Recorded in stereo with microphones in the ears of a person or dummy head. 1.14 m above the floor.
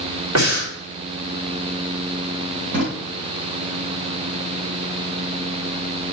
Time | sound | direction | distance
0.3 | breathing | 75° right (ahead or behind) | 2 m
2.7 | a drawer | 60° right (ahead or behind) | 3 m